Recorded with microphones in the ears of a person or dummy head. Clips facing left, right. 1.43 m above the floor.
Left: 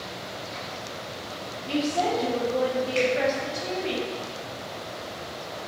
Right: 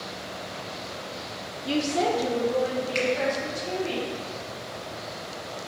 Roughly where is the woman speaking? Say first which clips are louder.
Right 1 dB; right.